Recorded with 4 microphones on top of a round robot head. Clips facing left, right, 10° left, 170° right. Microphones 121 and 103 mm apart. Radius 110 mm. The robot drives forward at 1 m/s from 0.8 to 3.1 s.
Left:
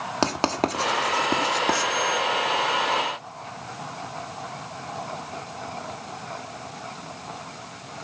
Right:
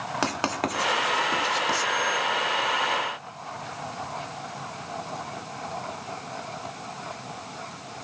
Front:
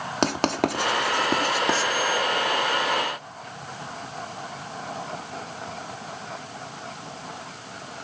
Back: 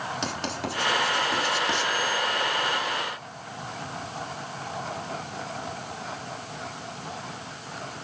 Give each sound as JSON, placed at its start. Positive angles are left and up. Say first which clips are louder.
{"t": 0.2, "sound": "writing", "louder": "left 5 dB, front 8 dB", "azimuth_deg": 30, "distance_m": 1.7}